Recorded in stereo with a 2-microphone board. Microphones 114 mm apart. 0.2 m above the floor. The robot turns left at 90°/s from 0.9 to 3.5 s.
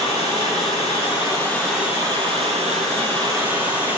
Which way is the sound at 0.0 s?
70° left.